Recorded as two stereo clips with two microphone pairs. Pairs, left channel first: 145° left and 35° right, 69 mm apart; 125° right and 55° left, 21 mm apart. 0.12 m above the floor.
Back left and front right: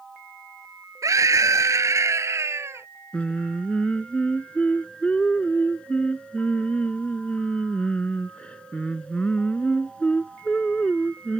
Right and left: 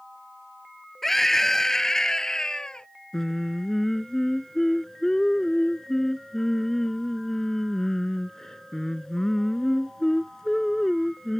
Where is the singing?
165° right.